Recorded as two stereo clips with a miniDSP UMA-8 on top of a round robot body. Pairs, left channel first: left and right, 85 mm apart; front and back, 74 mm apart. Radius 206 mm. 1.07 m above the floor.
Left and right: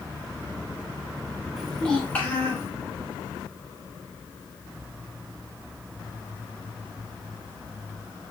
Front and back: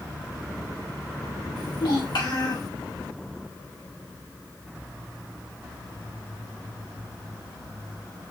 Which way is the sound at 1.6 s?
Straight ahead.